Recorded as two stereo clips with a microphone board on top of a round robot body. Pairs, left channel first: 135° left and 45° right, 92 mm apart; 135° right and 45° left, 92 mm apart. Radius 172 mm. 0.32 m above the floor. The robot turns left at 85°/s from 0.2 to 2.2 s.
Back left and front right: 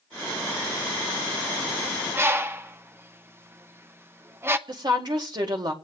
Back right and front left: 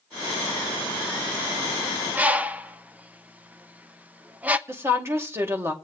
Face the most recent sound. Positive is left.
turn(degrees=-15)